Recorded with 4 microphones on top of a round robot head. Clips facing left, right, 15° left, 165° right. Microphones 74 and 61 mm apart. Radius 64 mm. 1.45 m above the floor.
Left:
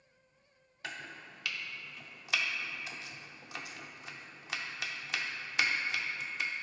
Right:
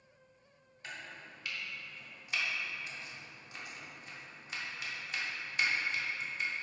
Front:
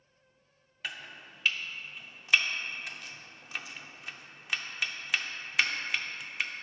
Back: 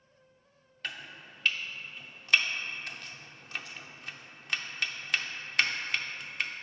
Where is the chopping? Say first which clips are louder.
Left 2 dB, even; 100° left, 0.6 m.